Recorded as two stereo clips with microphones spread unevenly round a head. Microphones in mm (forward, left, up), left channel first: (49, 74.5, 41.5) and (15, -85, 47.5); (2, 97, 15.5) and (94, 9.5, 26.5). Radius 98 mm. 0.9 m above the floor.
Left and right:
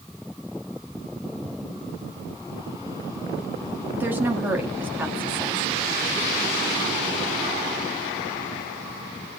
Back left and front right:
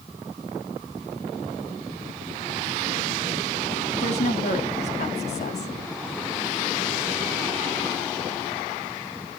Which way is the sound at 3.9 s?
175° left.